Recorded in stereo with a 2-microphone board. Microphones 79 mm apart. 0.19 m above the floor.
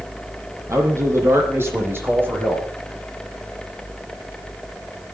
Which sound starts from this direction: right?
A man speaking, at 0.7 s.